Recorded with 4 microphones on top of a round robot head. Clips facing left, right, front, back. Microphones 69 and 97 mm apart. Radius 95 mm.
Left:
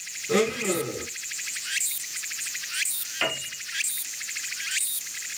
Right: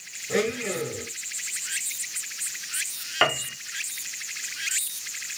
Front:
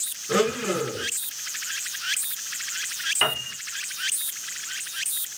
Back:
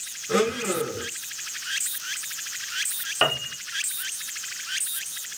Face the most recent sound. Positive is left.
turn(degrees=-125)